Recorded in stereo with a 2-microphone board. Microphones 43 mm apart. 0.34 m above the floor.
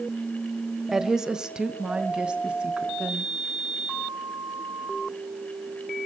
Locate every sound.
0.9 s a woman speaking: 10° right (ahead or behind), 1.6 m; by 3.3 s 25° right (ahead or behind), 4.5 m